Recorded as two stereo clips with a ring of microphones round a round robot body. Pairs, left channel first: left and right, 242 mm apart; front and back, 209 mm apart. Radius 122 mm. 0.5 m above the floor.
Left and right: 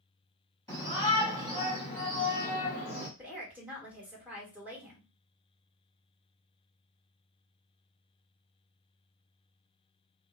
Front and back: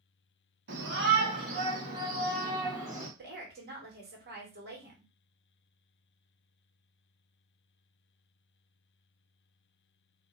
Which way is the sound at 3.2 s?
170° right.